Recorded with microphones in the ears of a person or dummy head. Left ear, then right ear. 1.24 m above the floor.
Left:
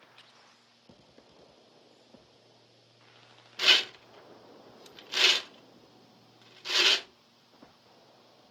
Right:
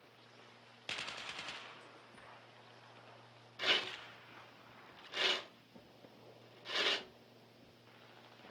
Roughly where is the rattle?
Left.